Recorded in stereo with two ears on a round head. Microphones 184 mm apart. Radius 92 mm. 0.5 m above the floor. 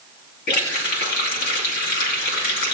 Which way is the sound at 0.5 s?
45° left (ahead or behind).